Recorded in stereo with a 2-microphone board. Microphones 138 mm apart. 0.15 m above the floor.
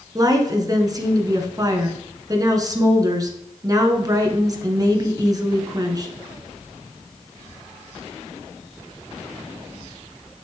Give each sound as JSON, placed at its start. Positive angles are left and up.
{"t": 0.1, "sound": "a woman speaking", "side_deg": -30, "distance_m": 1.4}